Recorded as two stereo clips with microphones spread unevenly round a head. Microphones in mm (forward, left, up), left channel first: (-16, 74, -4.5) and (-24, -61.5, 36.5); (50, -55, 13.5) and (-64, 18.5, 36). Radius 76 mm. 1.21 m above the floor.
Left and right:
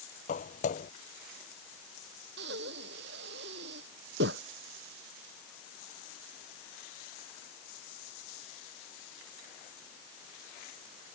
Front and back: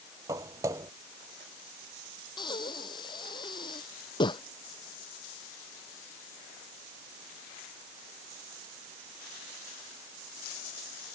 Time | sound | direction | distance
0.3 | footsteps | 110° left | ?
2.4 | breathing | 95° right | ?